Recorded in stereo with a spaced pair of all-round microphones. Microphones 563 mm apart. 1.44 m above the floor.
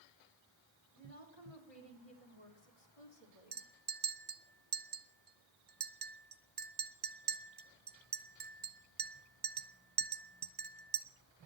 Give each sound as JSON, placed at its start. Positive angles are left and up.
{"t": 0.9, "sound": "a woman speaking", "side_deg": 75, "distance_m": 4.0}
{"t": 3.5, "sound": "a clink", "side_deg": -45, "distance_m": 1.4}